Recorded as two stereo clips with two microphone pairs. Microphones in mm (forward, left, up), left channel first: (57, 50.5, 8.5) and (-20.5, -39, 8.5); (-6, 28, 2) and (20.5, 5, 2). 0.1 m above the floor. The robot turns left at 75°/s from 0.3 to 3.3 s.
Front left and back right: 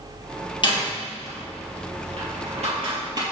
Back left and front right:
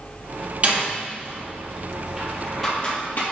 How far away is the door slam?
About 2.5 m.